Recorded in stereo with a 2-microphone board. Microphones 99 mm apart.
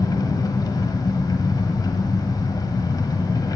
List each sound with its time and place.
0.0 s an engine running: 40° left (ahead or behind), 1.1 m